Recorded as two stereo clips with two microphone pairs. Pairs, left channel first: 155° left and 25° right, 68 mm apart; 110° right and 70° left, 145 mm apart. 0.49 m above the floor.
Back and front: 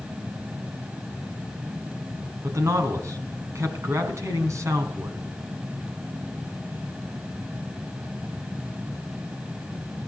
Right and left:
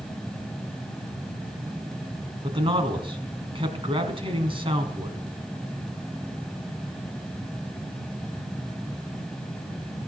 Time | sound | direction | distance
2.4 | a man speaking | 15° left | 4 m